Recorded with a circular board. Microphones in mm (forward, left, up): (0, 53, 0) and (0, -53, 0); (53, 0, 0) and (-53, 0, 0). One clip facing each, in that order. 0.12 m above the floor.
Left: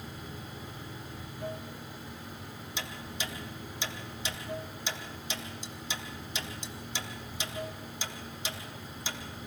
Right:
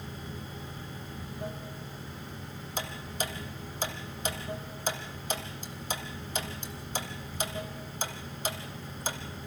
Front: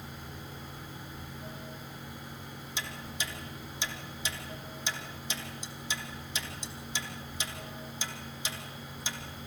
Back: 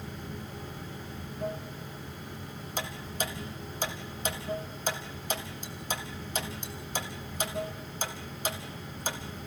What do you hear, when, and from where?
0.0 s running water: 145° right, 5 m
2.8 s ticking: 135° right, 1.6 m